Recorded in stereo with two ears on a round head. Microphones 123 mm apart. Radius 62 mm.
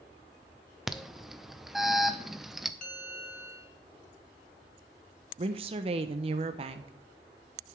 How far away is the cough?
No cough in this recording.